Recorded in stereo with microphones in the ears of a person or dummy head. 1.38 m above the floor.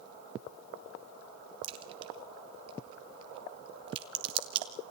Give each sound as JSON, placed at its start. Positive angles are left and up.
{"t": 1.6, "sound": "a crack", "side_deg": -30, "distance_m": 2.0}